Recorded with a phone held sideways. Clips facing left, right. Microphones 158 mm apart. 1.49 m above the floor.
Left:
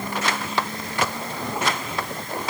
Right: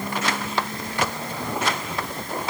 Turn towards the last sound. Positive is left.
No sound to turn to.